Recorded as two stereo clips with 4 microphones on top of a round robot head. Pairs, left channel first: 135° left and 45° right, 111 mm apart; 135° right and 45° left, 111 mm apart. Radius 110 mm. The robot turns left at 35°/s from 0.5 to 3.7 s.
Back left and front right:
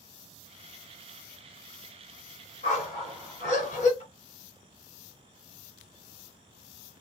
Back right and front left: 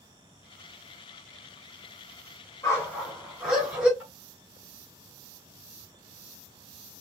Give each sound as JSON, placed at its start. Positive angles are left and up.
{"t": 2.6, "sound": "a dog barking", "azimuth_deg": 160, "distance_m": 2.0}
{"t": 4.0, "sound": "tapping", "azimuth_deg": 120, "distance_m": 2.0}